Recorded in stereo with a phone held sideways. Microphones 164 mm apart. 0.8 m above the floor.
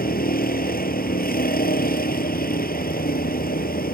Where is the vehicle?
70° left (ahead or behind).